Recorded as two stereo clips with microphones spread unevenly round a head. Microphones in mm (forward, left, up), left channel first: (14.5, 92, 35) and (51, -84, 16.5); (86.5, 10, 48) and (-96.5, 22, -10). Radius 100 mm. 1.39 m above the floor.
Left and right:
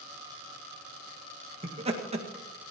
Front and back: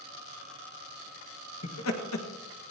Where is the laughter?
25° right, 1.9 m.